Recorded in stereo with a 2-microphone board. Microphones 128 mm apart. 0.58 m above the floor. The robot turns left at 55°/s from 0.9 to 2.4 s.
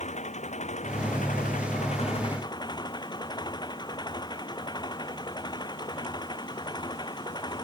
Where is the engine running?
115° left; by 7.6 s 35° left.